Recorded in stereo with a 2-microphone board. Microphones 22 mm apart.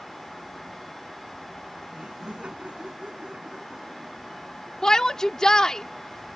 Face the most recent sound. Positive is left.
turn(degrees=30)  # may be behind; listen again after turning